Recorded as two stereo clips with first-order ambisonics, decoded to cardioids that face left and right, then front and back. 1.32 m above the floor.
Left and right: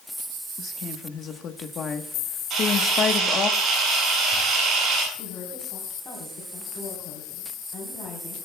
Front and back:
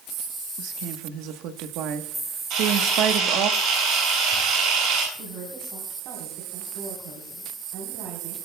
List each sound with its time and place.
0.6 s a woman speaking: 150° left, 1.2 m
2.5 s a camera shutter: 145° right, 9 m
5.1 s a woman speaking: 145° left, 4 m